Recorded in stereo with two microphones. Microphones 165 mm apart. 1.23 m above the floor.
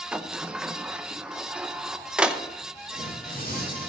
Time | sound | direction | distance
0.1 | a sliding door | 5° right (ahead or behind) | 0.6 m
2.9 | tearing paper | 65° left (ahead or behind) | 6 m